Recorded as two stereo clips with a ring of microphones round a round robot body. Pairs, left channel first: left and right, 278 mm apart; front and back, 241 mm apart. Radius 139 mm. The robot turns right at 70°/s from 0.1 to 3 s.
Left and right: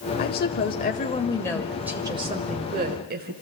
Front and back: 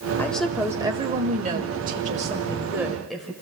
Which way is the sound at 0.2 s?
75° left.